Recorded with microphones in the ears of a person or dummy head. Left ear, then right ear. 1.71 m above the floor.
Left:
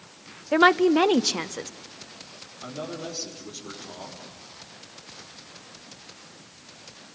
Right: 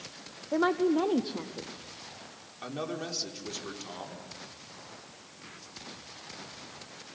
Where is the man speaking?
60° right (ahead or behind), 5 m.